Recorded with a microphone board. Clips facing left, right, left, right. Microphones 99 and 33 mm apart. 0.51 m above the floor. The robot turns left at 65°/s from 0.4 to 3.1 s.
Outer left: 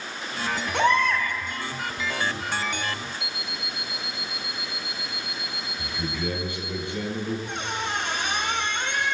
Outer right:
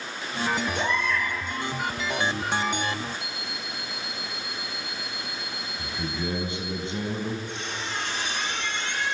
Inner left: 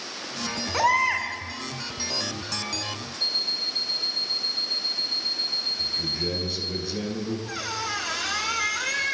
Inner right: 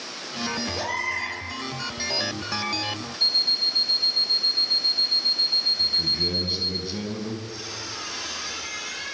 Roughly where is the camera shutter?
I don't hear a camera shutter.